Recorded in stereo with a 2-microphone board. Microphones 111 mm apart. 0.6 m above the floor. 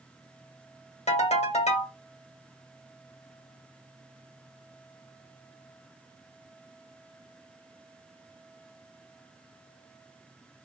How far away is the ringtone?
About 1.2 m.